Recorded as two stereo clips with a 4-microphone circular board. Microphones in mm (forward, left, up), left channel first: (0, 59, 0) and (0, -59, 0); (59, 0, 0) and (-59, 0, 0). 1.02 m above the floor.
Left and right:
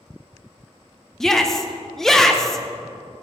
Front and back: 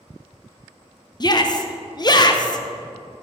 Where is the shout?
5° left, 0.8 m.